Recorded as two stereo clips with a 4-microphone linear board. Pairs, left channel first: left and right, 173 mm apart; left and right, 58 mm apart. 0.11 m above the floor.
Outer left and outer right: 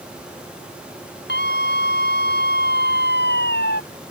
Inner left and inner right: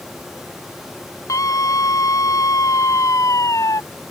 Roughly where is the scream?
Left.